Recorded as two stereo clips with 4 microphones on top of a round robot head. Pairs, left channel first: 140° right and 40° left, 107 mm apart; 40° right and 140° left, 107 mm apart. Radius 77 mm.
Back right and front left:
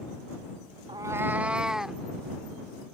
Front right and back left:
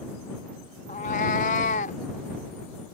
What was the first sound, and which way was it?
A cat meowing, 10° right.